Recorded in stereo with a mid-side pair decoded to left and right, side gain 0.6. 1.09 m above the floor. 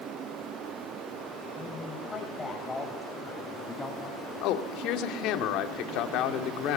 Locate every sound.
1.6 s a man speaking: 20° left, 6.5 m; by 4.3 s 15° left, 8 m
4.4 s a man speaking: 70° left, 2.5 m